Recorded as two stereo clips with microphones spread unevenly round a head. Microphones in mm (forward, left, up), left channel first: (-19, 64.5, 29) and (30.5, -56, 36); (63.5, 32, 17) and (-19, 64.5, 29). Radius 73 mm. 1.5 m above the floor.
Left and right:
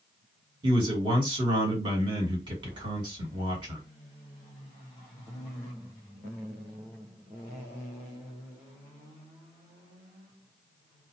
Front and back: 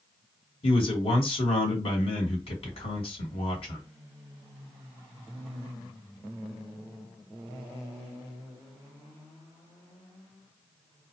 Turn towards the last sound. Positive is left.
turn(degrees=-10)